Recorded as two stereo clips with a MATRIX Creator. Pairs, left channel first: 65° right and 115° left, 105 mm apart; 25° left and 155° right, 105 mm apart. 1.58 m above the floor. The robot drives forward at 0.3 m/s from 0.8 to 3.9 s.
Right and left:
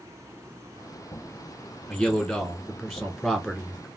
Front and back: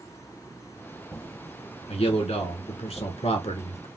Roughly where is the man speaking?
Ahead.